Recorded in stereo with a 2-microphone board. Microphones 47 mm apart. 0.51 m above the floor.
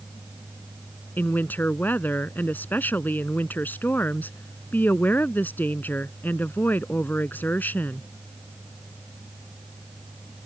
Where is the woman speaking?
40° left (ahead or behind).